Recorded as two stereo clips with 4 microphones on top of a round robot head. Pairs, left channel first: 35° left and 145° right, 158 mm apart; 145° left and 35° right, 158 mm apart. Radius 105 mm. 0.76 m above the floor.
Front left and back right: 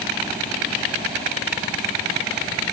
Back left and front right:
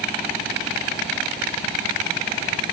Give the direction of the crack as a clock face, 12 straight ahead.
I don't hear a crack.